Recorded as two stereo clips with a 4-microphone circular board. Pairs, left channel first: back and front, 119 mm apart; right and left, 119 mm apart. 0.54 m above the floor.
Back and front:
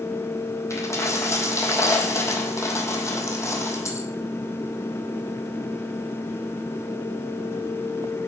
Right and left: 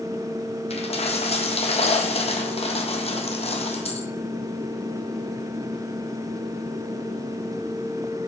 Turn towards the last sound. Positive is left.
turn(degrees=-115)